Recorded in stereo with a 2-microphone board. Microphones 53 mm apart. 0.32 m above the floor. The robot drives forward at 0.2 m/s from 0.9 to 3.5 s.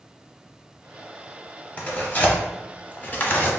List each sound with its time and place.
1.8 s tearing paper: 30° left (ahead or behind), 0.8 m; by 3.5 s 35° left (ahead or behind), 0.6 m